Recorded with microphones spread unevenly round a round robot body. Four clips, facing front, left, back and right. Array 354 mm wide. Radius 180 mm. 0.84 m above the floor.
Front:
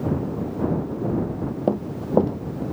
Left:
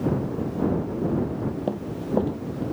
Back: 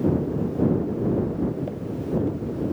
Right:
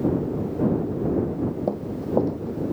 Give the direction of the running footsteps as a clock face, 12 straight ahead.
12 o'clock.